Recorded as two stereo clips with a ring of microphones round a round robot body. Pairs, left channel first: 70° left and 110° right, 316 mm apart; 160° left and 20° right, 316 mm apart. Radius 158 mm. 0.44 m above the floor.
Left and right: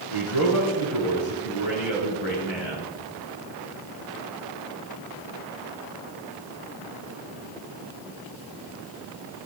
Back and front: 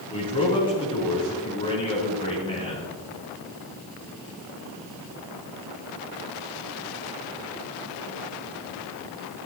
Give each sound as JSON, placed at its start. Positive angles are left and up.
{"t": 0.1, "sound": "a man speaking", "azimuth_deg": 80, "distance_m": 6.5}